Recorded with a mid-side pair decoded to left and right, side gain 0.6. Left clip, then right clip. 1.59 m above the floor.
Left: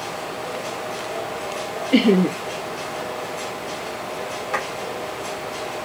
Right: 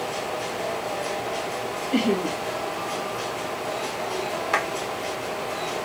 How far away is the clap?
About 1.5 m.